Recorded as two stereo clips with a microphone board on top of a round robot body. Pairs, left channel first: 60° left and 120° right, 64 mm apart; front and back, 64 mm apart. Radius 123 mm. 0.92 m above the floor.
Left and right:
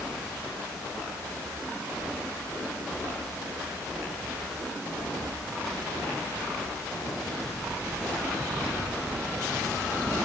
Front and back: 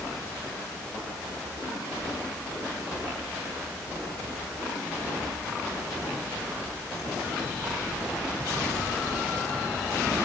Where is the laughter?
No laughter in this recording.